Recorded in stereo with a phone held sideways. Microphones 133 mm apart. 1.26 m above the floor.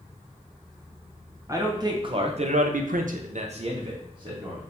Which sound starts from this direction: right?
A man speaking, at 1.5 s.